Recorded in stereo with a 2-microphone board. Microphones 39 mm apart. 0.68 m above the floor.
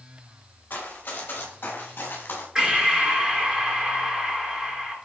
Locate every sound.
0.7 s running footsteps: 45° left (ahead or behind), 7.5 m; by 2.5 s 60° left (ahead or behind), 6 m
2.5 s breathing: 20° right (ahead or behind), 4 m